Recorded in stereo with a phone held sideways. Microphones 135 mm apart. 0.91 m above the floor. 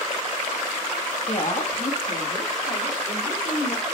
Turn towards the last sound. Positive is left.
turn(degrees=80)